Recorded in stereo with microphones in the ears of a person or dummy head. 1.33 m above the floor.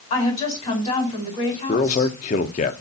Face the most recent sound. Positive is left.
turn(degrees=40)  # may be behind; listen again after turning